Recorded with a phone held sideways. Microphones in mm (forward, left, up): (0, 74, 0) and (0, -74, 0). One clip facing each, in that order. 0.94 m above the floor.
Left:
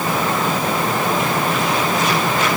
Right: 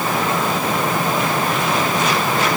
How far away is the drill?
No drill in this recording.